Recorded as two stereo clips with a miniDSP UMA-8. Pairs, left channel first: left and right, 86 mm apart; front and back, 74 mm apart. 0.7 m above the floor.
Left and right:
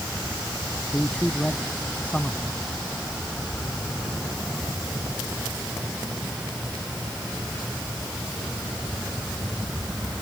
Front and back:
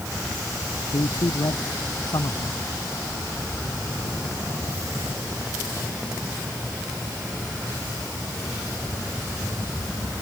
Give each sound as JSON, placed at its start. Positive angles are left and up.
{"t": 0.9, "sound": "a man speaking", "azimuth_deg": 15}